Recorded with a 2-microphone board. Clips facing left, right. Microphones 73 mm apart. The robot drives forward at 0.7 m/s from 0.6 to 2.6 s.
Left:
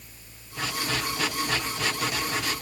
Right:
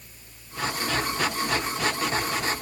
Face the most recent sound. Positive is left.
No sound to turn to.